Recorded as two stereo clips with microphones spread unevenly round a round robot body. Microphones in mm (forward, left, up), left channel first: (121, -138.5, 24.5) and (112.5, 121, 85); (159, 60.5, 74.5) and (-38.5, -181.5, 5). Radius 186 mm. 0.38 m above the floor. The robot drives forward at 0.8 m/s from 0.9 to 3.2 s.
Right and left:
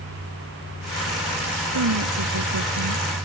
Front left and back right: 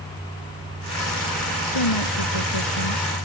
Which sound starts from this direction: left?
A woman speaking, at 1.7 s.